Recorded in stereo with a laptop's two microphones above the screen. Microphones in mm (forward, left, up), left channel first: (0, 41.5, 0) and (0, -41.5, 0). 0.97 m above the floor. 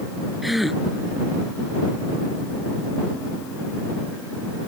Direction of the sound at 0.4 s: Centre (ahead or behind).